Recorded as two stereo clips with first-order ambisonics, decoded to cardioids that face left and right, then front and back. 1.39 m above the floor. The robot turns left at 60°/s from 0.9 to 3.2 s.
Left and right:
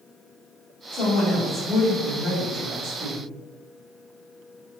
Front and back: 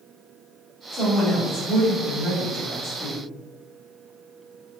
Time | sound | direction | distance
0.9 | a woman speaking | 60° left | 1.8 m